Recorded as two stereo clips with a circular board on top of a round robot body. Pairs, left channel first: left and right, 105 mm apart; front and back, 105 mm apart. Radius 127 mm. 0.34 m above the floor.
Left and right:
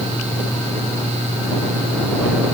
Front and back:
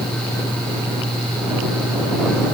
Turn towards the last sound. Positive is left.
No sound to turn to.